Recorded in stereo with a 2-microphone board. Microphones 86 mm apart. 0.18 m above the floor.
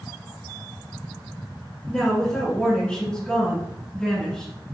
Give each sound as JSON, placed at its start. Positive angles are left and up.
{"t": 1.9, "sound": "a woman speaking", "side_deg": 10, "distance_m": 1.9}